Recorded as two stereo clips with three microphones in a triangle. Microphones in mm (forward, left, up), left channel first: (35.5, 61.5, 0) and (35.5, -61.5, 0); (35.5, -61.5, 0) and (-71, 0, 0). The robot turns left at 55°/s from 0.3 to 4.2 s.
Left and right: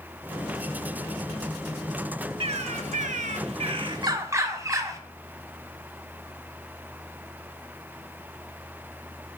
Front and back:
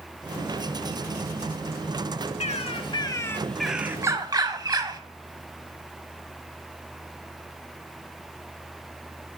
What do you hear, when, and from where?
2.4 s a bird: 55° right, 0.5 m; by 5.0 s 150° right, 0.5 m